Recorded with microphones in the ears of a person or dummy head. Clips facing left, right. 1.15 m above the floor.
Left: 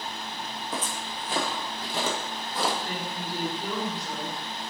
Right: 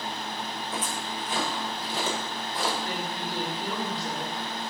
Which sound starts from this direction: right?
A woman speaking, at 2.9 s.